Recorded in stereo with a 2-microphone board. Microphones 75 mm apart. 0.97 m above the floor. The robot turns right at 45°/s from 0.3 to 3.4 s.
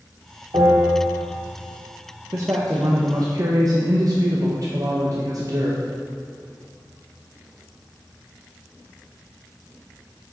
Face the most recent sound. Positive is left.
turn(degrees=-75)